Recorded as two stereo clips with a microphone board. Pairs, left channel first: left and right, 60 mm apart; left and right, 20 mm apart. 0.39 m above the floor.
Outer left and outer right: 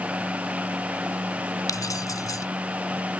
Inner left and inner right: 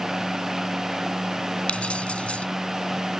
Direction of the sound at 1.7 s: 75° left (ahead or behind).